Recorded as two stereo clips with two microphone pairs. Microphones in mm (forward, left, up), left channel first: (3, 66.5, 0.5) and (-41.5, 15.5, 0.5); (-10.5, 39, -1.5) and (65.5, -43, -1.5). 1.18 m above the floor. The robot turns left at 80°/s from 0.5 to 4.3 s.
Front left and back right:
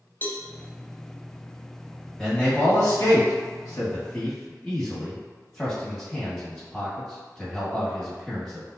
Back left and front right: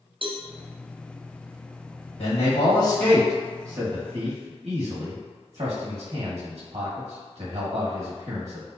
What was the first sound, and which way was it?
A cowbell, 5° right.